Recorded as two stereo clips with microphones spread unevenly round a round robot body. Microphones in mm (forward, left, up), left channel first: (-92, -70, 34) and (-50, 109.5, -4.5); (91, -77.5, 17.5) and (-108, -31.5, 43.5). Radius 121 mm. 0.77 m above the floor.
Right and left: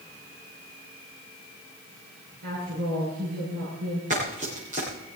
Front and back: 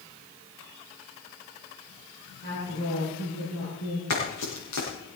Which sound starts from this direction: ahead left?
A woman speaking, at 2.4 s.